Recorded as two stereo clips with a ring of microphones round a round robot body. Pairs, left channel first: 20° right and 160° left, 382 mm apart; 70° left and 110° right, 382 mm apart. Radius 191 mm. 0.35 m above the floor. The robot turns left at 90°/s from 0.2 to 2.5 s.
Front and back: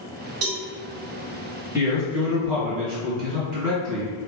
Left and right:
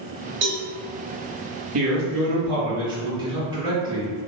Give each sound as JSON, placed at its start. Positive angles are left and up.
{"t": 0.4, "sound": "a cowbell", "azimuth_deg": -165, "distance_m": 1.0}
{"t": 1.7, "sound": "a man speaking", "azimuth_deg": -120, "distance_m": 1.5}